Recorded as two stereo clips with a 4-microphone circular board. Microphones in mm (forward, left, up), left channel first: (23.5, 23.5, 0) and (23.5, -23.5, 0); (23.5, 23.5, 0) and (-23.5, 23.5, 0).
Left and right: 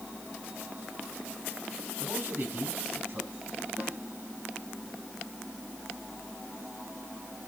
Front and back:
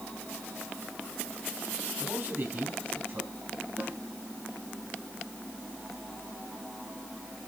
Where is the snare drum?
135° right, 6.5 m.